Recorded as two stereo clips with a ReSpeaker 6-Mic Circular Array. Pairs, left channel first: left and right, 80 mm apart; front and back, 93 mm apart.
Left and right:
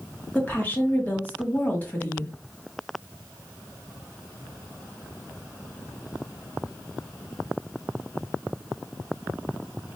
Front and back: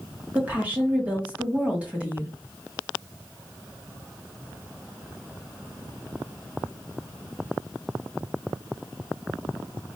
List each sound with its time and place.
0.3 s a woman speaking: 125° left, 1.1 m